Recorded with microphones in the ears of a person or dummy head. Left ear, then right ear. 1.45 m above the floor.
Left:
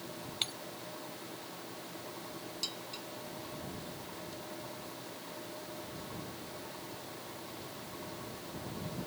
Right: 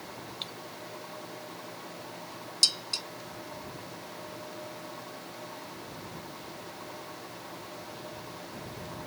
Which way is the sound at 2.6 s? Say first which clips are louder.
Right 15 dB; 50° right (ahead or behind).